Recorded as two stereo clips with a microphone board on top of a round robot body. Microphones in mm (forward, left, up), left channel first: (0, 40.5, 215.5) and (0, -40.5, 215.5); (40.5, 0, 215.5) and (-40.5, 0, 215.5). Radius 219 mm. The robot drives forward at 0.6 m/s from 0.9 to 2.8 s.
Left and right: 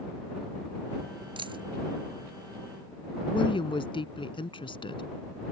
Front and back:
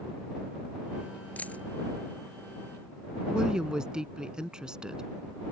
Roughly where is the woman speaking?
Left.